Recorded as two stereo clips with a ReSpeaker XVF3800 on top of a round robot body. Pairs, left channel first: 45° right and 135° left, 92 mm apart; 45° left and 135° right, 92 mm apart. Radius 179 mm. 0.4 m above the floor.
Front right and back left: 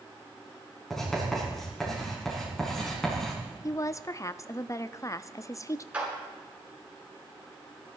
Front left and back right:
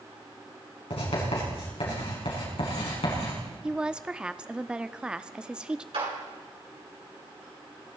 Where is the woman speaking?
60° right, 0.9 m.